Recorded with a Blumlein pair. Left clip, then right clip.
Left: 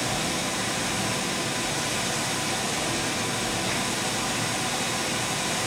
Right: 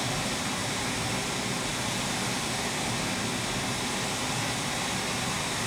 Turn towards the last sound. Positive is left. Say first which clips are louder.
# left 3 dB
turn(degrees=30)